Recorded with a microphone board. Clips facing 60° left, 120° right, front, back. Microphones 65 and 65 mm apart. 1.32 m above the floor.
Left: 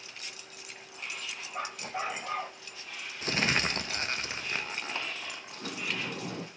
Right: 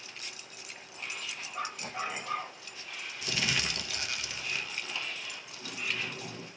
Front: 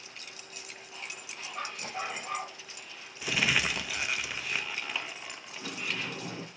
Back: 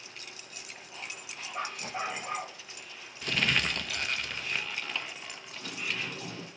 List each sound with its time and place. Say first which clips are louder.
1.5 s a dog barking: left 1 dB, back 2 dB; 115° left, 2.5 m
3.2 s crumpling: left 4 dB, even; 80° left, 0.6 m
5.5 s a sliding door: left 1 dB, even; 65° left, 0.9 m